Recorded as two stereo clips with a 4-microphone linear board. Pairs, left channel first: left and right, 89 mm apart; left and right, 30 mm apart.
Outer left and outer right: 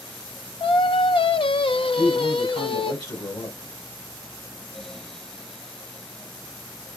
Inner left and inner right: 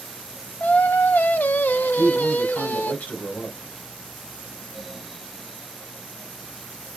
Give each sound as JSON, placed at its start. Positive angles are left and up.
{"t": 0.6, "sound": "singing", "side_deg": 75, "distance_m": 0.5}
{"t": 1.9, "sound": "a man speaking", "side_deg": 55, "distance_m": 2.5}